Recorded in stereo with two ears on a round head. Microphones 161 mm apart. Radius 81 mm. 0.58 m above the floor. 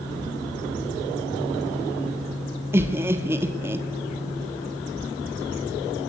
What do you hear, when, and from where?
2.7 s laughter: 15° right (ahead or behind), 1.3 m